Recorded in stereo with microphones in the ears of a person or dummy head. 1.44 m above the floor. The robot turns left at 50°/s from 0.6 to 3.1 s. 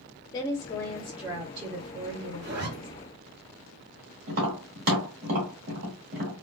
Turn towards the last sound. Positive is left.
turn(degrees=-45)  # may be behind; listen again after turning